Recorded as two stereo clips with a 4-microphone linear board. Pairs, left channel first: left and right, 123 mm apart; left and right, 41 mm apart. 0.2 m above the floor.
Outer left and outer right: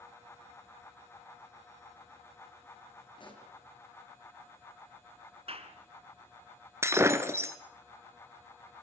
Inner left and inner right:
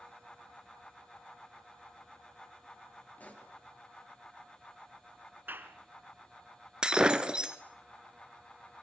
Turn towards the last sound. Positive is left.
turn(degrees=-25)  # may be behind; listen again after turning